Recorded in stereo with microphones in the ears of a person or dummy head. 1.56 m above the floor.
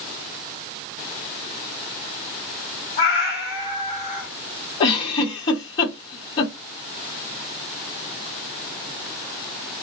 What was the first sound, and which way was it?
A cat meowing, 30° left (ahead or behind).